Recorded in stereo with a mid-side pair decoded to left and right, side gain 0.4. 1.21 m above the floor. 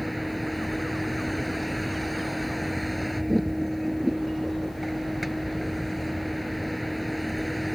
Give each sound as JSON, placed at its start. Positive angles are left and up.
{"t": 0.0, "sound": "a vehicle", "azimuth_deg": 0}